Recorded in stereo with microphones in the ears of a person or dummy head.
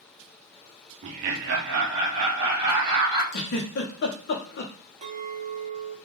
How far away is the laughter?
About 0.5 m.